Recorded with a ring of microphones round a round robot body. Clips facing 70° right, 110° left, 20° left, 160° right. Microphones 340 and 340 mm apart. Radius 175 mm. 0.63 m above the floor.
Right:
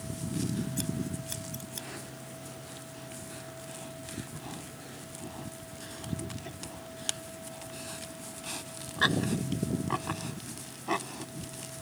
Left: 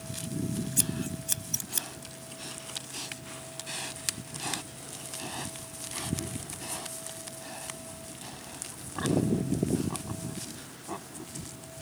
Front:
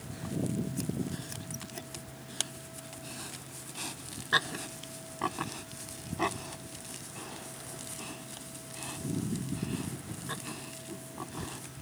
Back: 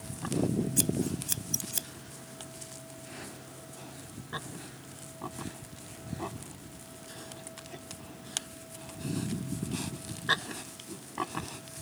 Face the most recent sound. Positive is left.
turn(degrees=170)